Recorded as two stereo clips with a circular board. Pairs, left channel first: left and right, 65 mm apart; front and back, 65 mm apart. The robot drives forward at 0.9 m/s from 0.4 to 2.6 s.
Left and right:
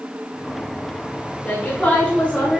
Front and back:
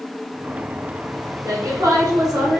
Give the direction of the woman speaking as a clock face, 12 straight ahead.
7 o'clock.